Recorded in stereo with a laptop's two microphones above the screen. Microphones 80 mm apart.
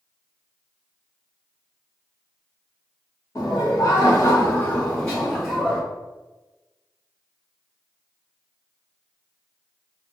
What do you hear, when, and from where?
3.4 s laughter: 40° left (ahead or behind), 1.3 m; by 5.8 s 5° right (ahead or behind), 1.1 m